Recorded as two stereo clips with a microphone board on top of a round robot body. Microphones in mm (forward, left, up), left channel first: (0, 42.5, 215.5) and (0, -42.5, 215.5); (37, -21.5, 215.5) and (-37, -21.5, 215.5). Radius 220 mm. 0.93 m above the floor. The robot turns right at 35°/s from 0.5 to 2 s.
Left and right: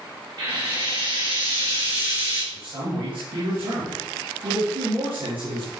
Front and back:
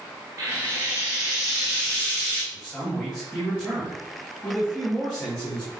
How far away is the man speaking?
About 3 m.